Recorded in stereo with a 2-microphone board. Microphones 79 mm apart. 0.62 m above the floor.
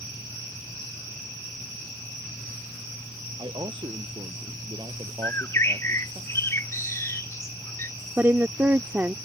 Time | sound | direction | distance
3.4 | a man speaking | 75° right (ahead or behind) | ?
5.2 | a bird | 35° left (ahead or behind) | ?
8.2 | a woman speaking | 30° right (ahead or behind) | ?